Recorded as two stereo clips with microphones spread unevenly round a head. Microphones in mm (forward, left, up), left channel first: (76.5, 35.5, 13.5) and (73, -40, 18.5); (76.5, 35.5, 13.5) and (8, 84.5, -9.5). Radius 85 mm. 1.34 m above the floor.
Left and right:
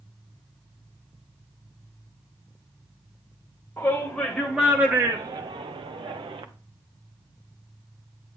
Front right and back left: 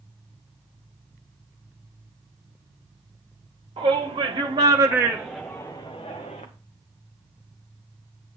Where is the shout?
165° left, 1.7 m; by 6.5 s 80° right, 1.3 m.